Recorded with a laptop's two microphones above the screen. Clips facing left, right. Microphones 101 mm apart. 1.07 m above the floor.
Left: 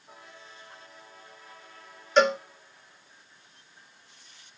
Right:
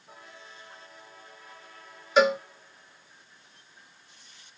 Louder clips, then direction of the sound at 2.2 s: Even; 5° right (ahead or behind).